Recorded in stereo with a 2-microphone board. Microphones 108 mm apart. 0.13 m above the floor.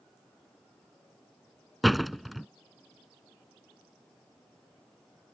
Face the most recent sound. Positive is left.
turn(degrees=0)  # may be behind; listen again after turning